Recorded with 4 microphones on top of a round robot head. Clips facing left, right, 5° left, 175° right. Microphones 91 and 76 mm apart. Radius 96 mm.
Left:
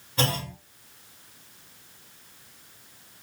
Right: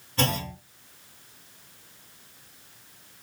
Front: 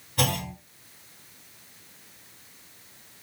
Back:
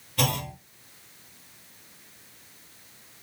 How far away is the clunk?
About 1.5 m.